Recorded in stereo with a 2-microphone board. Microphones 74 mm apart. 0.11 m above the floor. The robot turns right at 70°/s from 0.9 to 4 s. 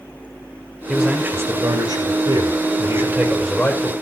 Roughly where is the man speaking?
Behind.